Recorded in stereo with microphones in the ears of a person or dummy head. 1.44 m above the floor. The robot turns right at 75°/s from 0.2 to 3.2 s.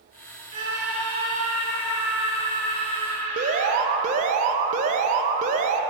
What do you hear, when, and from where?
0.5 s a scream: 35° right, 2.5 m; by 3.8 s 165° left, 2.5 m
3.4 s an alarm: 40° right (ahead or behind), 0.6 m